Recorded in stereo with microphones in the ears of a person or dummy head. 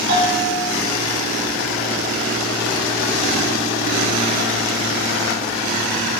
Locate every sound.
0.1 s a bell: 65° right (ahead or behind), 5 m